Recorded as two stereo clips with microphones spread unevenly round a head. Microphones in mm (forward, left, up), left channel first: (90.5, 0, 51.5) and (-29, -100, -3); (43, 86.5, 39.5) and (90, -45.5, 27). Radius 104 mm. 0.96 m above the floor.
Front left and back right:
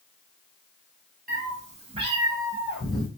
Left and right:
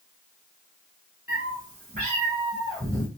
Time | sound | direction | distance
1.3 | a cat meowing | 95° right | 1.3 m